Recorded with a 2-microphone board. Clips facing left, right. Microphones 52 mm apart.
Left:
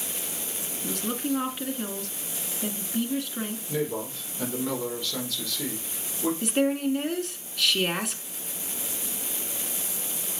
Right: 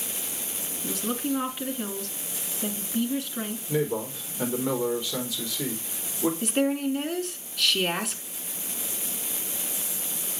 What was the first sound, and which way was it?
A woman speaking, centre (ahead or behind).